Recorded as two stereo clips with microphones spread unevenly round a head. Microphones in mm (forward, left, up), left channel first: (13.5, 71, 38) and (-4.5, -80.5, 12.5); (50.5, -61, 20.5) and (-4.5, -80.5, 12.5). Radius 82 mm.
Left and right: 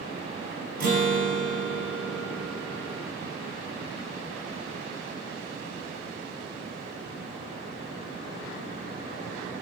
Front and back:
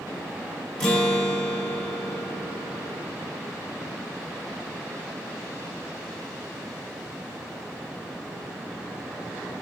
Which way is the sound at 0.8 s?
60° right.